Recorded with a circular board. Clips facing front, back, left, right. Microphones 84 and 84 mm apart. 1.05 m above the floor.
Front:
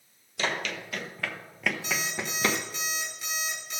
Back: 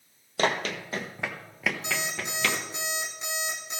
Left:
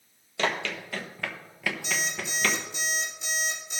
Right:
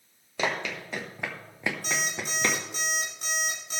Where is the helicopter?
I don't hear a helicopter.